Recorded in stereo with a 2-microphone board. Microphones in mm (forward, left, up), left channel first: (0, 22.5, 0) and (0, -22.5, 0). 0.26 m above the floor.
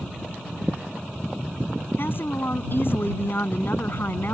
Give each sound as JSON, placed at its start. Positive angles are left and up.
{"t": 2.0, "sound": "a woman speaking", "side_deg": 55}